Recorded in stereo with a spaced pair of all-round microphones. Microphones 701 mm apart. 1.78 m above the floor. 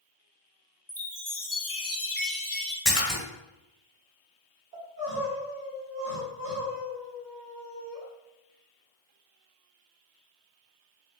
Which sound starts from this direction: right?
Crying, at 4.7 s.